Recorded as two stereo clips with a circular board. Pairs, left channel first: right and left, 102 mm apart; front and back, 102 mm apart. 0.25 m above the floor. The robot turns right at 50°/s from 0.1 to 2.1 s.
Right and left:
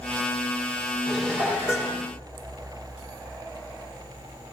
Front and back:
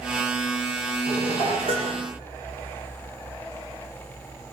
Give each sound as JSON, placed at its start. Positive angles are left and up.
{"t": 1.1, "sound": "dishes clattering", "azimuth_deg": 175, "distance_m": 8.5}